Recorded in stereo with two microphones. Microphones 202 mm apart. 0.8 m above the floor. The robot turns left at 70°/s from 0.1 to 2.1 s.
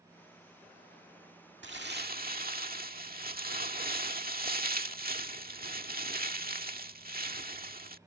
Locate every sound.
1.6 s crumpling: 95° right; by 8.0 s 125° right